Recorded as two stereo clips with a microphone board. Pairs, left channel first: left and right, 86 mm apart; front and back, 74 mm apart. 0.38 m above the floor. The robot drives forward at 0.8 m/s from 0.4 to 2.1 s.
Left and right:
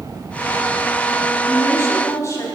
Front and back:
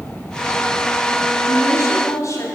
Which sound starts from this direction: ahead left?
A woman speaking, at 1.5 s.